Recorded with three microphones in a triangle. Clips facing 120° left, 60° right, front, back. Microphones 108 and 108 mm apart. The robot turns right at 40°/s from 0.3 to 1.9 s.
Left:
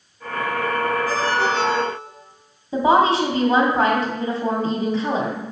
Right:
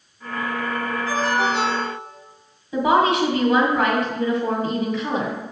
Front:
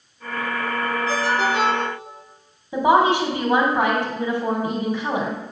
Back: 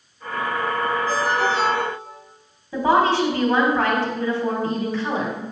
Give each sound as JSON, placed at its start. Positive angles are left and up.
{"t": 1.1, "sound": "a ringtone", "azimuth_deg": 5, "distance_m": 4.5}
{"t": 2.7, "sound": "a woman speaking", "azimuth_deg": 70, "distance_m": 2.5}